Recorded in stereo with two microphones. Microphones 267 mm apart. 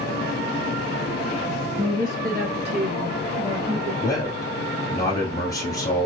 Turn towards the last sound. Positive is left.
turn(degrees=15)  # may be behind; listen again after turning